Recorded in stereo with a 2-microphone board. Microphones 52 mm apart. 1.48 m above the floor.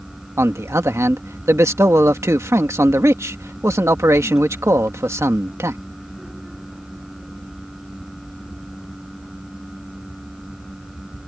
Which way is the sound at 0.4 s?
70° right (ahead or behind).